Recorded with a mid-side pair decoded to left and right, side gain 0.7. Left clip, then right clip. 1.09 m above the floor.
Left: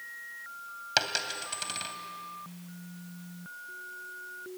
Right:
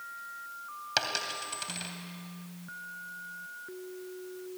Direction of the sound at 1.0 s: 15° left.